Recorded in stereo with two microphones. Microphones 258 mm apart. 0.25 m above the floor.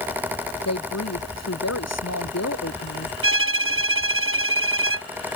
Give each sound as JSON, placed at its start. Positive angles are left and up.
{"t": 0.7, "sound": "a woman speaking", "side_deg": 85}
{"t": 3.2, "sound": "a violin", "side_deg": -55}